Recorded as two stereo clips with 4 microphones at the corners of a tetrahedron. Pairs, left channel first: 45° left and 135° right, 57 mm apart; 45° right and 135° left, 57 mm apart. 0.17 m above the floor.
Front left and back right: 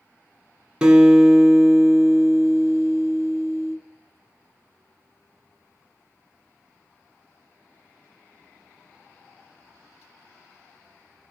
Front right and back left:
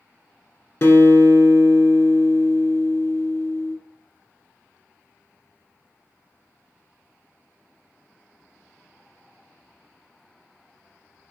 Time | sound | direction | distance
0.8 | a guitar | 65° right | 0.9 m